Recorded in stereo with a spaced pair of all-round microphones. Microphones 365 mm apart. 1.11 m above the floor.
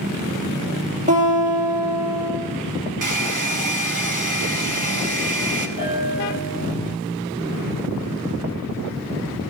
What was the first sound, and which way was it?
A guitar, 20° right (ahead or behind).